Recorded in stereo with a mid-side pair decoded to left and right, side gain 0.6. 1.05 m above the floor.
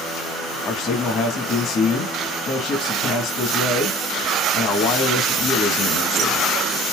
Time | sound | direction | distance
0.7 | a man speaking | 50° left | 1.1 m